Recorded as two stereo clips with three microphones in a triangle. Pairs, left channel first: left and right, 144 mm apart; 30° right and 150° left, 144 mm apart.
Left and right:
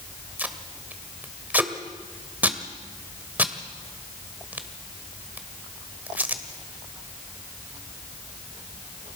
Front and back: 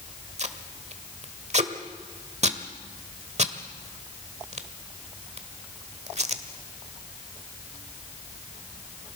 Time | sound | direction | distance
0.4 | tape being pulled | 170° right | 1.2 m